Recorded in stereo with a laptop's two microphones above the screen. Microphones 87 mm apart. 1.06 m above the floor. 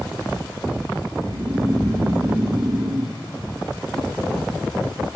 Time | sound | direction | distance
1.2 | snoring | 50° right (ahead or behind) | 0.8 m